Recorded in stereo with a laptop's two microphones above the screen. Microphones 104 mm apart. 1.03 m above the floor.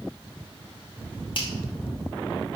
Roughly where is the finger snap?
Left.